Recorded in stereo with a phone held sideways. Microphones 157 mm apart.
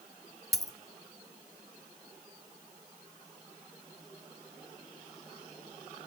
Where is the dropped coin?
20° right (ahead or behind), 0.6 m.